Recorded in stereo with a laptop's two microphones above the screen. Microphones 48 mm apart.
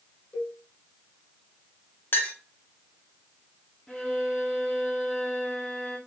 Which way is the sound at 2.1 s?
50° left (ahead or behind).